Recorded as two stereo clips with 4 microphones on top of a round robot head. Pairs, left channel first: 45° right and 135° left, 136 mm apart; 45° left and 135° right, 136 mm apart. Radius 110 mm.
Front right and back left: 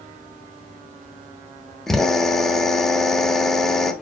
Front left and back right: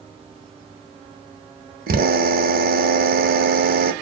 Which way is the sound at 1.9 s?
130° right.